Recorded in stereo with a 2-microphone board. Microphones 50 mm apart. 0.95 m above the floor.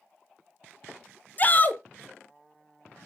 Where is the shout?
35° left (ahead or behind), 0.5 m.